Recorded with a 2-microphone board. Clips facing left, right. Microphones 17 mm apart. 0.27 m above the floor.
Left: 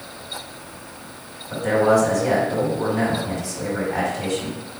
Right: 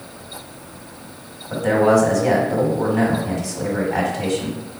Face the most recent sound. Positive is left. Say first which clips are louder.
# right 2 dB
turn(degrees=-30)  # may be behind; listen again after turning